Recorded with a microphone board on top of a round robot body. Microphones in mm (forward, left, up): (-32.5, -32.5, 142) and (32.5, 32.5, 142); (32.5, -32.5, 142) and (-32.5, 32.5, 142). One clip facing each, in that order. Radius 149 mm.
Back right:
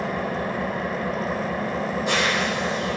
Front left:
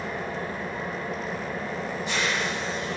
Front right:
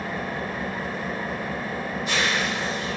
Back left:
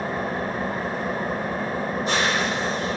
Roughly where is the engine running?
Behind.